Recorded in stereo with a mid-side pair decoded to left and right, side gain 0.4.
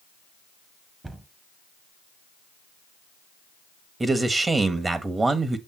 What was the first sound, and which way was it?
A cupboard door, 20° right.